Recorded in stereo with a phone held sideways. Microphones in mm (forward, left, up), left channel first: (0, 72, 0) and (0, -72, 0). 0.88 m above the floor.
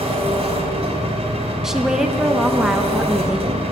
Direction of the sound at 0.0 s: 45° right (ahead or behind).